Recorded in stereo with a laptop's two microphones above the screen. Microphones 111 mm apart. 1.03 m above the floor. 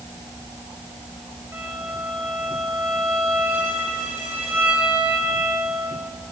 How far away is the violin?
About 4.5 m.